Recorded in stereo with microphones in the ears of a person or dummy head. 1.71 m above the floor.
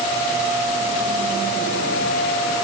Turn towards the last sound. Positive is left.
No sound to turn to.